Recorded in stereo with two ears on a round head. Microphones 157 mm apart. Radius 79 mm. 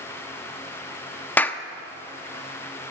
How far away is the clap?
About 0.9 m.